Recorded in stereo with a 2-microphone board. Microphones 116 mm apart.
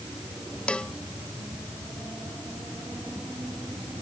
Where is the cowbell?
10° left (ahead or behind).